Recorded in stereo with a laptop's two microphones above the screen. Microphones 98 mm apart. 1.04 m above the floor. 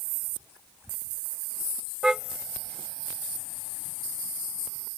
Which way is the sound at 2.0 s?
10° right (ahead or behind).